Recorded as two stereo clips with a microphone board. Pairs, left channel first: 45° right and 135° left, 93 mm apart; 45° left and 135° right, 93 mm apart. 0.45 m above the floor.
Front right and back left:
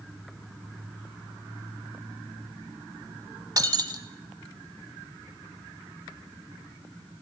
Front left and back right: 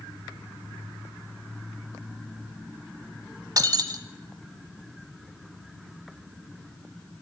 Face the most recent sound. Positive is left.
turn(degrees=180)